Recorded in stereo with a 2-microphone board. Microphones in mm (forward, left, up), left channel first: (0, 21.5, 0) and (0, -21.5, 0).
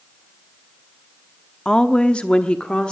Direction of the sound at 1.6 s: 15° left (ahead or behind).